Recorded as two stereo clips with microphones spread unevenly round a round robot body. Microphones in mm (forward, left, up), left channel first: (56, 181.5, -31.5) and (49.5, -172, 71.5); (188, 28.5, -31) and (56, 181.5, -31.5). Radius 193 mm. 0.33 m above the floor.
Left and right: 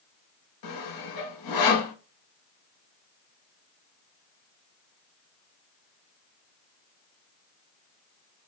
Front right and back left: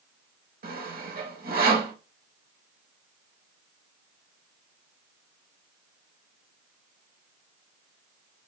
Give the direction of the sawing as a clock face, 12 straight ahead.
9 o'clock.